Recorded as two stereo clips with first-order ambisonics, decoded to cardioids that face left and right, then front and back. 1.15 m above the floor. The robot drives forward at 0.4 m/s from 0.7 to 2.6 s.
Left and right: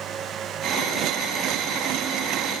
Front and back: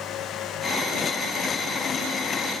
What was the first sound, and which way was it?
Only background noise.